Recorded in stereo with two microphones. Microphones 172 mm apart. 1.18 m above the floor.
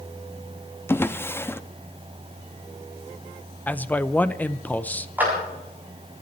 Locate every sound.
0.9 s a drawer: 15° left (ahead or behind), 0.6 m
3.7 s a man speaking: 10° left (ahead or behind), 0.6 m
5.2 s a clap: 10° right (ahead or behind), 7 m